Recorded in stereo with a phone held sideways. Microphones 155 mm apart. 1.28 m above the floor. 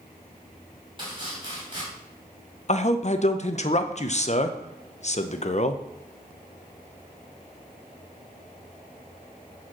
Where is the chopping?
30° right (ahead or behind), 3.5 m.